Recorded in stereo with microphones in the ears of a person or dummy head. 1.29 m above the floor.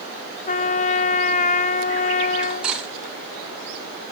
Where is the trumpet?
35° left (ahead or behind), 0.6 m.